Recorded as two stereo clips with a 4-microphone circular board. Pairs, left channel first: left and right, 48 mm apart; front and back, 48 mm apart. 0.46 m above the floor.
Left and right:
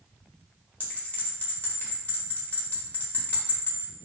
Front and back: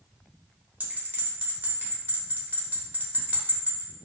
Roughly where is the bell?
Behind left.